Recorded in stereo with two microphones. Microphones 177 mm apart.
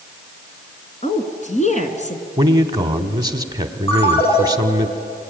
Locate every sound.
1.0 s a woman speaking: 40° left (ahead or behind), 2 m
2.4 s a man speaking: 25° right (ahead or behind), 1.2 m
3.9 s a ringtone: 30° left (ahead or behind), 4.5 m